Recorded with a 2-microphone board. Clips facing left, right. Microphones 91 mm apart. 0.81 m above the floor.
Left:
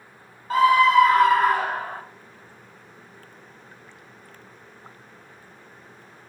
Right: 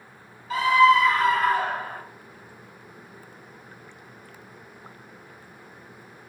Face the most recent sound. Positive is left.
turn(degrees=70)  # may be behind; listen again after turning